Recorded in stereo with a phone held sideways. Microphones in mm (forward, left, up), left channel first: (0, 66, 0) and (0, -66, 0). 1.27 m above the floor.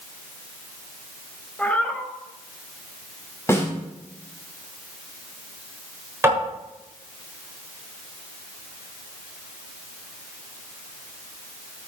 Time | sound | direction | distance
1.6 | a cat meowing | 10° left (ahead or behind) | 1.9 m
3.5 | a snare drum | 20° left (ahead or behind) | 6 m
6.2 | tapping | 20° right (ahead or behind) | 7 m